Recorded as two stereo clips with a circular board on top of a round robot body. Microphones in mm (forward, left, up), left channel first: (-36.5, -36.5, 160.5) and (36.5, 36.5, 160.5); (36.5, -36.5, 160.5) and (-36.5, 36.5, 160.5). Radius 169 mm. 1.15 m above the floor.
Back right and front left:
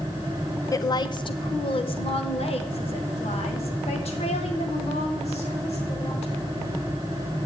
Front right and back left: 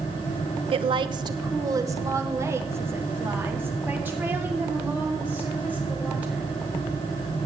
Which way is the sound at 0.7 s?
165° left.